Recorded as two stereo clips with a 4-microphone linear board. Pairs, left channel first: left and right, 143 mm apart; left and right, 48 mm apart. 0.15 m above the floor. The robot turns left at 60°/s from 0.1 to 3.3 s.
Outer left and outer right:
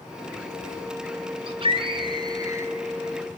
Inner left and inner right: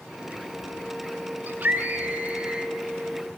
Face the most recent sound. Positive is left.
turn(degrees=170)